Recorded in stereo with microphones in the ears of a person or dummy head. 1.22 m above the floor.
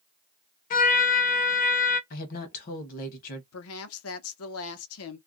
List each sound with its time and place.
0.7 s a trumpet: 40° left (ahead or behind), 0.5 m
2.1 s a woman speaking: 45° left (ahead or behind), 0.9 m
3.5 s a woman speaking: 75° left (ahead or behind), 0.8 m